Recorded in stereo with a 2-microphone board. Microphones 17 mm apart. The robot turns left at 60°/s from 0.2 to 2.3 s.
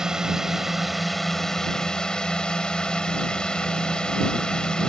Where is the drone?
125° right; by 4.9 s 105° left.